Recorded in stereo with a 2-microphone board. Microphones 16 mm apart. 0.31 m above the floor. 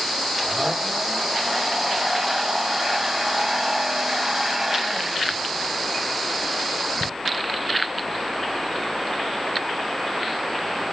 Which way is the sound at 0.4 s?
20° right (ahead or behind).